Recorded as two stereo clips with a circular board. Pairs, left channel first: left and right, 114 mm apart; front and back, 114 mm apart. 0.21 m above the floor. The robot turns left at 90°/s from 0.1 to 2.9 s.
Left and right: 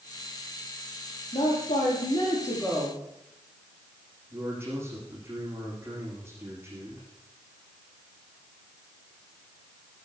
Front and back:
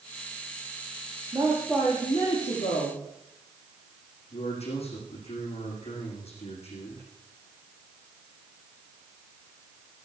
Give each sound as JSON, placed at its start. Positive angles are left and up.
{"t": 1.3, "sound": "a woman speaking", "azimuth_deg": 125, "distance_m": 8.5}
{"t": 4.3, "sound": "a man speaking", "azimuth_deg": -25, "distance_m": 9.0}